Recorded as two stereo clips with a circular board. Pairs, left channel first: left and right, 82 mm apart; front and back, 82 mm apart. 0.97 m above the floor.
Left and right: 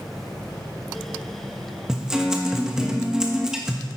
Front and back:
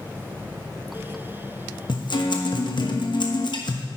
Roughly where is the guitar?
Ahead.